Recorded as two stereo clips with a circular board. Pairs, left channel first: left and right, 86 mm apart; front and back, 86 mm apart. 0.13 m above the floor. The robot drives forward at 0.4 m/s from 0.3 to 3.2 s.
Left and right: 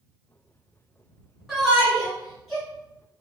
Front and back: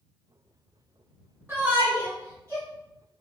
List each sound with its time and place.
1.5 s a shout: 170° right, 1.1 m; by 2.6 s 175° right, 1.4 m